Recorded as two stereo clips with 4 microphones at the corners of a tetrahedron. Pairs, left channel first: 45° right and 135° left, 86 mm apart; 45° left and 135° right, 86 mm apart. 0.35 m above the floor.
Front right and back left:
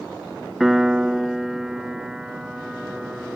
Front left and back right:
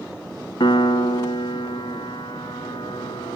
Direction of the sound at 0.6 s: 50° left.